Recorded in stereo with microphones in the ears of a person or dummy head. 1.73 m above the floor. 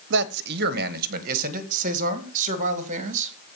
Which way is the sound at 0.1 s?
60° right (ahead or behind).